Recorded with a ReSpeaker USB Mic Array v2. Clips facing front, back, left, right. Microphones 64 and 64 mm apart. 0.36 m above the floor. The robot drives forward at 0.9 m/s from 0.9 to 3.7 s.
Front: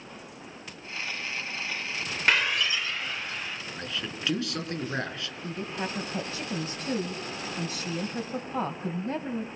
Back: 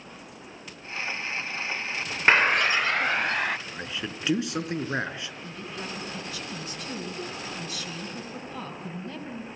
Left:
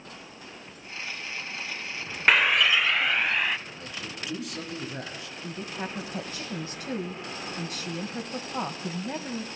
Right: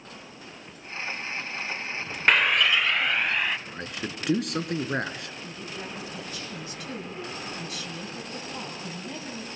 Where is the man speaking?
110° right, 4 m.